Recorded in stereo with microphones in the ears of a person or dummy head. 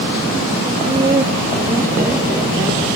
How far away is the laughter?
About 2 m.